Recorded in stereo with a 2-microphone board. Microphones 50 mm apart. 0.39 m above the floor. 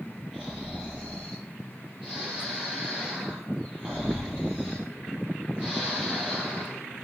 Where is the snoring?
15° right (ahead or behind), 8.5 m.